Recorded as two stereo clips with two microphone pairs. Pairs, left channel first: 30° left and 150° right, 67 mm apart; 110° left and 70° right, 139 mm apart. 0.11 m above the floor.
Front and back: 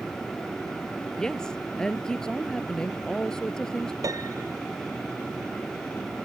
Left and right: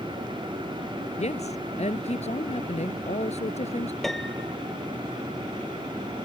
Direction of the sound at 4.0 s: 165° right.